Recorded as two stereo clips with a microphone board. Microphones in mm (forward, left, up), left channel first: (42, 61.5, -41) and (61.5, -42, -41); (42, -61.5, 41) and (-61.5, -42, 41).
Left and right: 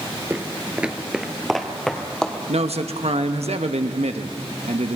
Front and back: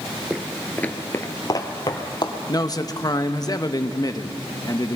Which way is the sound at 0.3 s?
115° right.